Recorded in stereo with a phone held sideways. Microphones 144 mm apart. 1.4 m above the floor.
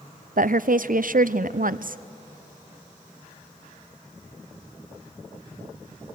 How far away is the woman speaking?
About 0.6 m.